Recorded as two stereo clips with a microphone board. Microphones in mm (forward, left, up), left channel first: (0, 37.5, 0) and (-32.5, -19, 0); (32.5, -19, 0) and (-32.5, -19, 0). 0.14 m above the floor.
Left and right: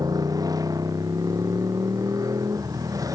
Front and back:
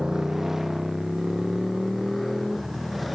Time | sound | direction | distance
0.0 | a motorcycle | 100° right | ?